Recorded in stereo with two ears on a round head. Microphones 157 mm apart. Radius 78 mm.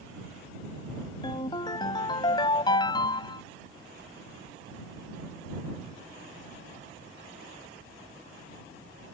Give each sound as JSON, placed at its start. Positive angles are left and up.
{"t": 1.2, "sound": "a ringtone", "side_deg": 25}